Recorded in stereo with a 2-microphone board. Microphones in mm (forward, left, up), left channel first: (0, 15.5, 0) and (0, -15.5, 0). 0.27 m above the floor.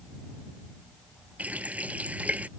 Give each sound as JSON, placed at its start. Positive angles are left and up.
{"t": 1.4, "sound": "a running tap", "side_deg": -50}